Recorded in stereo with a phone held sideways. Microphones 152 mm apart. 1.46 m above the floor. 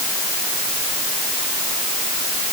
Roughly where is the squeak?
I don't hear a squeak.